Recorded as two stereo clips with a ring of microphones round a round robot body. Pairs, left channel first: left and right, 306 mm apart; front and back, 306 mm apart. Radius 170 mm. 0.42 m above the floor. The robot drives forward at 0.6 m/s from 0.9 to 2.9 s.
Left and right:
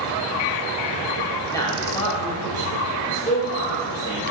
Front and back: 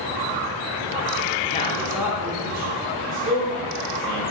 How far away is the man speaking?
About 0.8 m.